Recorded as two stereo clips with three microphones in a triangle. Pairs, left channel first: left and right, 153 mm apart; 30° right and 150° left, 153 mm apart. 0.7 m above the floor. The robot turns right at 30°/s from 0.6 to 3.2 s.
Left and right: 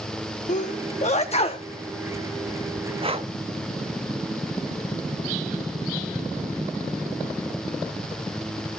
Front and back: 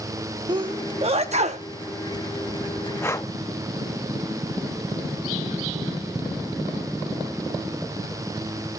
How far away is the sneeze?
About 0.8 m.